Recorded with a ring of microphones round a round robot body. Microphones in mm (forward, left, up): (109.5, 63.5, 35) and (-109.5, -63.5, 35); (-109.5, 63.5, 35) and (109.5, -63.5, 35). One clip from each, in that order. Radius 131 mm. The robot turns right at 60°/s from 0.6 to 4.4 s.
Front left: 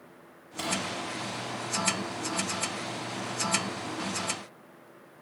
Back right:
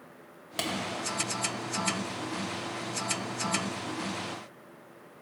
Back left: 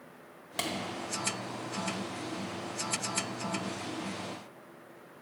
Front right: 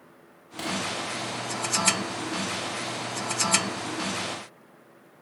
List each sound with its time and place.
0.6 s a clap: 160° right, 1.6 m; by 0.7 s 155° right, 1.6 m